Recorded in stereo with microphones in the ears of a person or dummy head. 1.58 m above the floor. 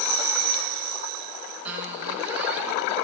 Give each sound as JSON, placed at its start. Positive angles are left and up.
{"t": 1.6, "sound": "a squeak", "side_deg": -10, "distance_m": 2.0}